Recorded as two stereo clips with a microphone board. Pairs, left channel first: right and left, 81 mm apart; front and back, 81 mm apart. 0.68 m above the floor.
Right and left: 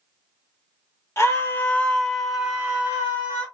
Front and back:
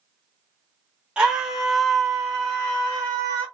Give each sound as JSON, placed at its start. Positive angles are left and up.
{"t": 1.2, "sound": "a scream", "azimuth_deg": -110, "distance_m": 1.0}